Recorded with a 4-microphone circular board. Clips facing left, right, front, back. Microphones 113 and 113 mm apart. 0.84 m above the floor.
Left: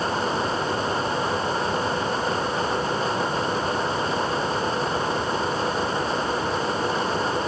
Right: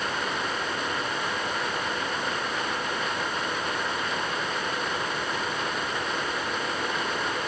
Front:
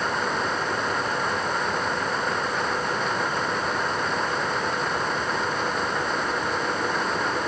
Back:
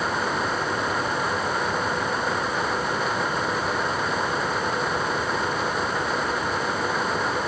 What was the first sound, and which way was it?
Only background noise.